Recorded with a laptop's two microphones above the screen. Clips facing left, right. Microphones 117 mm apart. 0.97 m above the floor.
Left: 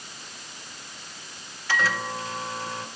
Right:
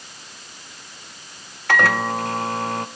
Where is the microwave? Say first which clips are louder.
Right 8 dB; 60° right (ahead or behind), 0.5 m.